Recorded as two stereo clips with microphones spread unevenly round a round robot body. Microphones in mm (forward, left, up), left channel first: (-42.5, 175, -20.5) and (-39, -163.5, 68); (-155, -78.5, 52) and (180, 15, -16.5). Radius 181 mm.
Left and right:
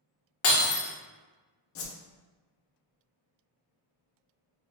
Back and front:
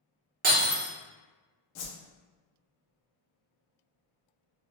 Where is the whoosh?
145° left, 0.6 m.